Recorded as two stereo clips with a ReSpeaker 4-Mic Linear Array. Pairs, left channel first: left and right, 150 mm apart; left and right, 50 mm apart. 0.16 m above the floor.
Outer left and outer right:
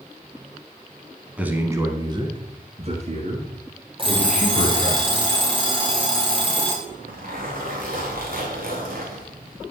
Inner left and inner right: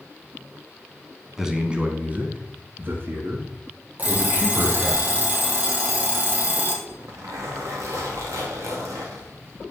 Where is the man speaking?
10° right (ahead or behind), 1.3 m; by 5.0 s 65° right (ahead or behind), 3 m.